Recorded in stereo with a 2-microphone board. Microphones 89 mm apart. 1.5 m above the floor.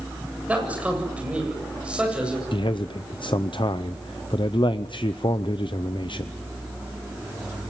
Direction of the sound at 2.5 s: 65° left (ahead or behind).